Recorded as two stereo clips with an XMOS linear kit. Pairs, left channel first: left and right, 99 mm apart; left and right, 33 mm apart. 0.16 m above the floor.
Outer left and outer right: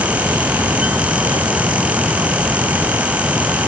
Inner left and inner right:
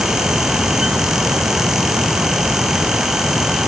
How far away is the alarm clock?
No alarm clock in this recording.